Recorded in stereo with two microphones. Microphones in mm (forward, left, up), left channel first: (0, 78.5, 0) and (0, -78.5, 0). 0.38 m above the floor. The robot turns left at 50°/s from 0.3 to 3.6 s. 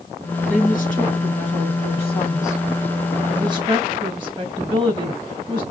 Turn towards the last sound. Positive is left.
turn(degrees=-30)  # may be behind; listen again after turning